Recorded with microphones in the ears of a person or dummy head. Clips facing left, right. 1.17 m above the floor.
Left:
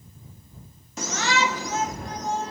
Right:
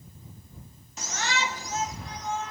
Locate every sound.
1.0 s a shout: 55° left (ahead or behind); by 2.5 s 30° left (ahead or behind)